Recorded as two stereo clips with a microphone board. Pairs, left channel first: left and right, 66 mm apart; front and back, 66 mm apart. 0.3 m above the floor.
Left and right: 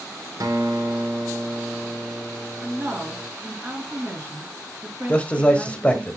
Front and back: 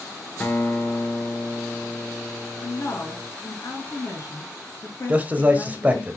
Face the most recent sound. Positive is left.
turn(degrees=140)